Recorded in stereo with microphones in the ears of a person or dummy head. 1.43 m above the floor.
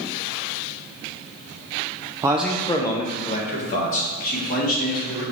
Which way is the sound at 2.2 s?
15° right (ahead or behind).